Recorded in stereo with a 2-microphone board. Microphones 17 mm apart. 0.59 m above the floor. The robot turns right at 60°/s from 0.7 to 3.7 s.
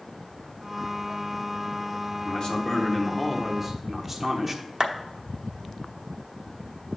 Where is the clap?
35° right (ahead or behind), 0.9 m.